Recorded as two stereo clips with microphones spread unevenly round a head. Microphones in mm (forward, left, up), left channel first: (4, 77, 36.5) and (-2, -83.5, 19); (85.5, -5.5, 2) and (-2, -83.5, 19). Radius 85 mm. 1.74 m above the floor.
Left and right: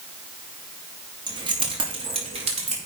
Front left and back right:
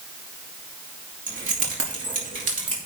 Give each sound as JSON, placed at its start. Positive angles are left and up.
{"t": 1.3, "sound": "keys jangling", "azimuth_deg": -160, "distance_m": 2.5}